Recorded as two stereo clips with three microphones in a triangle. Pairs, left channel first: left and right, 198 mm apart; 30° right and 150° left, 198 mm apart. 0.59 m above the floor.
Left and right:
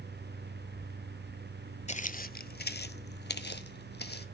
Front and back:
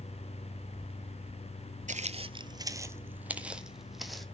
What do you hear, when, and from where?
1.9 s footsteps: 125° left, 0.7 m; by 4.2 s 60° left, 1.7 m